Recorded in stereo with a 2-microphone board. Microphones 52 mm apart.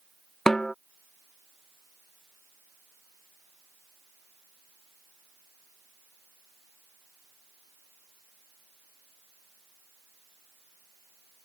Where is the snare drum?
10° left (ahead or behind).